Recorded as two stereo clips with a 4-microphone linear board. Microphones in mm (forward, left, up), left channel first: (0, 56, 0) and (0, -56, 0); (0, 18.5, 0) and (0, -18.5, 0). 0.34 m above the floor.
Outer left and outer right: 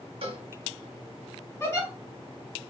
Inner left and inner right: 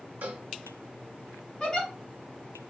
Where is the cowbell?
55° right (ahead or behind), 0.9 m.